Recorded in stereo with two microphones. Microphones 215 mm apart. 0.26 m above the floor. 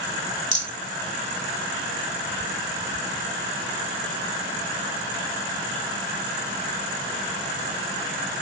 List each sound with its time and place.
0.5 s a rattle: 35° left (ahead or behind), 1.3 m